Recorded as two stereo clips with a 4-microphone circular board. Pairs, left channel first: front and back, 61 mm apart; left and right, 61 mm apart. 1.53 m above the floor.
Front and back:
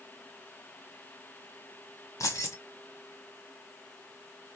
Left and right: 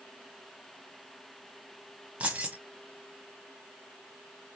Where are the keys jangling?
25° right, 1.1 m.